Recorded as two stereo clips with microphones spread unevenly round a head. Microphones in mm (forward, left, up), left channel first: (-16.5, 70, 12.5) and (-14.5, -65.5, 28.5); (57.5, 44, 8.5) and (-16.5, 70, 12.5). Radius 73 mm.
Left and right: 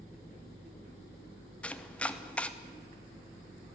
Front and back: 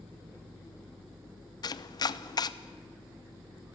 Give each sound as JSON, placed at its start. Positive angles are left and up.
{"t": 1.6, "sound": "chopping", "azimuth_deg": 10, "distance_m": 0.8}